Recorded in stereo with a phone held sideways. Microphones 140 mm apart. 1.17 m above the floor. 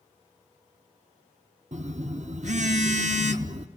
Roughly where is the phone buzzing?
Right.